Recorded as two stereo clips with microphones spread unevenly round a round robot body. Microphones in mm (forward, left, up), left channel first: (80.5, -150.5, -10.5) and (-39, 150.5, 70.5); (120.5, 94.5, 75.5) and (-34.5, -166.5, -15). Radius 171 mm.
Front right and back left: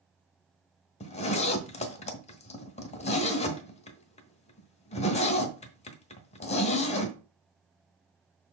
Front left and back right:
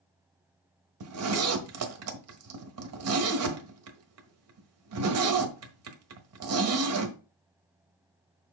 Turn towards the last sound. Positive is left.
turn(degrees=-130)